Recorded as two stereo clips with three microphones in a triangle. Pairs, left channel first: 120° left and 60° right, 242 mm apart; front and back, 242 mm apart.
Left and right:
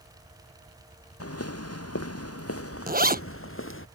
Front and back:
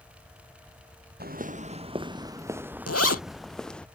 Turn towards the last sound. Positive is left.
turn(degrees=-5)